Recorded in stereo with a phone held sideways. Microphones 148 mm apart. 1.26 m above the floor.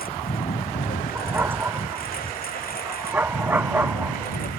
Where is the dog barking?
15° right (ahead or behind).